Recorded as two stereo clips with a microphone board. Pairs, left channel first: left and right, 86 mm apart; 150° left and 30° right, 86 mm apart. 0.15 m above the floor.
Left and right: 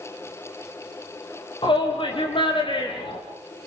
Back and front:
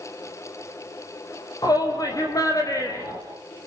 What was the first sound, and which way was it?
A shout, 105° left.